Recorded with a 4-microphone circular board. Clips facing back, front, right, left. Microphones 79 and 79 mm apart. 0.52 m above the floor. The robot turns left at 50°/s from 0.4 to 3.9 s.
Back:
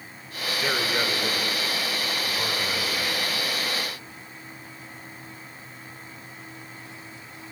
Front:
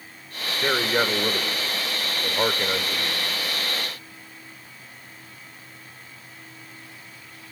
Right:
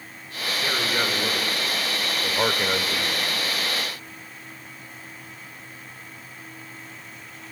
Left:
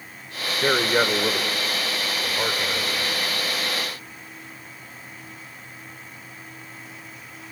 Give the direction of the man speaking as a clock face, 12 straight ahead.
10 o'clock.